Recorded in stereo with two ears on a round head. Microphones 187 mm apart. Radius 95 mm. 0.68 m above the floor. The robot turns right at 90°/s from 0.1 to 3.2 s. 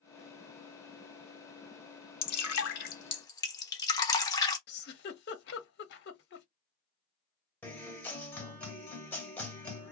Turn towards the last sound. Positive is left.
turn(degrees=10)  # may be behind; listen again after turning